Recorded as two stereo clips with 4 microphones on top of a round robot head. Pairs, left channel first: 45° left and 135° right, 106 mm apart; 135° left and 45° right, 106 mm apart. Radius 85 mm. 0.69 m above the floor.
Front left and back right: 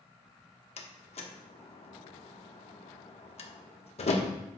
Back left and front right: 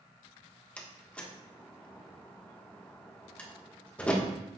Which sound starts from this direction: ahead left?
A door slam, at 0.8 s.